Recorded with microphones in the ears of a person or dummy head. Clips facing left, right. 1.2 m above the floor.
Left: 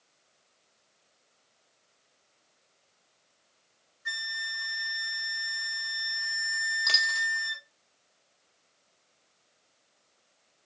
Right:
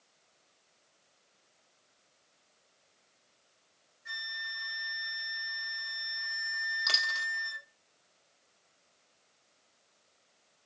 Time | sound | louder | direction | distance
4.0 | a flute | left 4 dB | 65° left (ahead or behind) | 1.3 m
6.9 | a dropped coin | left 3 dB | 5° right (ahead or behind) | 1.1 m